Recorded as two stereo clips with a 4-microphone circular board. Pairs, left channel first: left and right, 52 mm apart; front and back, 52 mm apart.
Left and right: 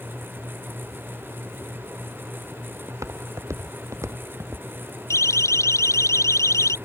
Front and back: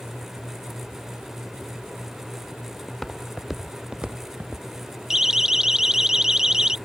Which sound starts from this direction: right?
Footsteps, at 2.9 s.